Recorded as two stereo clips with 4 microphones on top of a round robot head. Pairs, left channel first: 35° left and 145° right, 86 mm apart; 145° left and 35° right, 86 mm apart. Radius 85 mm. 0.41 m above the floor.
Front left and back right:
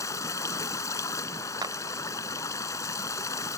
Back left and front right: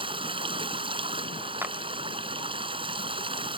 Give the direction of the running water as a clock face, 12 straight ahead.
1 o'clock.